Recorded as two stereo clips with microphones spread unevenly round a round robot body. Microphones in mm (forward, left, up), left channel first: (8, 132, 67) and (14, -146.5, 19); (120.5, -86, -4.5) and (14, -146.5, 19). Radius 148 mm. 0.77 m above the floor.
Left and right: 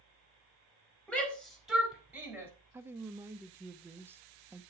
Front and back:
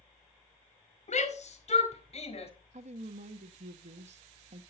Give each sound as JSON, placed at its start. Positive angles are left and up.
{"t": 1.1, "sound": "a shout", "azimuth_deg": 5, "distance_m": 4.0}
{"t": 2.7, "sound": "a woman speaking", "azimuth_deg": -160, "distance_m": 0.9}